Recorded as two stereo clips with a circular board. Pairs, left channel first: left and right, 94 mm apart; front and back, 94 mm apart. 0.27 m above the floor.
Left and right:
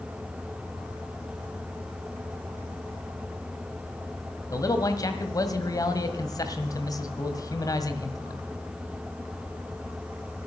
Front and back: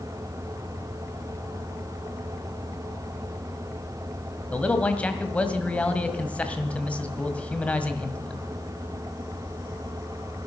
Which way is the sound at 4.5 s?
70° left.